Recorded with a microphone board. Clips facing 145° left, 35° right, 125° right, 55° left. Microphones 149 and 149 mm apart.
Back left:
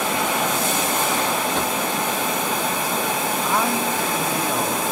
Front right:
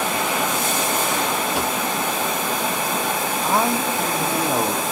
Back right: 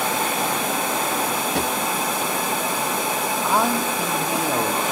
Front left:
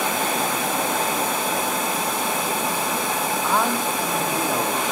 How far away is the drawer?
About 0.6 m.